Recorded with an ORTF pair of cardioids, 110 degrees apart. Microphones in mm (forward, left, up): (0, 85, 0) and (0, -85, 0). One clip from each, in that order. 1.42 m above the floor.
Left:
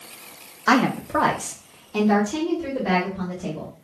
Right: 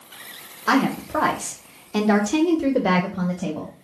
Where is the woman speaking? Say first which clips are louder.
Left 1 dB; 20° left, 0.9 m; by 3.7 s 75° right, 1.4 m.